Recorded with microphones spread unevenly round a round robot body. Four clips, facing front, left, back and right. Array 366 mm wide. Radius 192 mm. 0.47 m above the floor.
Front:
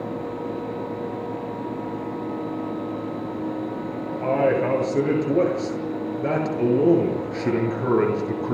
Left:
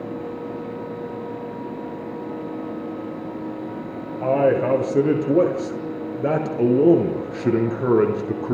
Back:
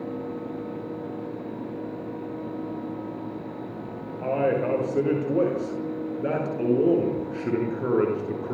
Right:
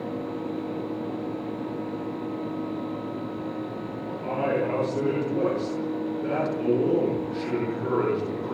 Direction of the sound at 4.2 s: 65° left.